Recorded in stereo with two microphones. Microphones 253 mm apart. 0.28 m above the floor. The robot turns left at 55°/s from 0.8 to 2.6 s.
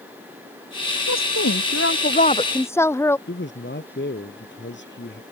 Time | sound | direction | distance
1.1 | a woman speaking | 95° left | ?
3.3 | a man speaking | 45° left (ahead or behind) | ?